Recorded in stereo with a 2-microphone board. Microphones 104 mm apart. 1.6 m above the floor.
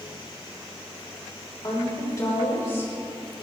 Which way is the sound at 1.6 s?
40° left (ahead or behind).